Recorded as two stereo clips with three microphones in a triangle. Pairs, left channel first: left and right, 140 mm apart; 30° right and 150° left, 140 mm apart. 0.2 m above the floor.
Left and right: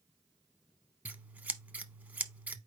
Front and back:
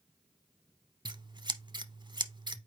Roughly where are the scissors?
Behind.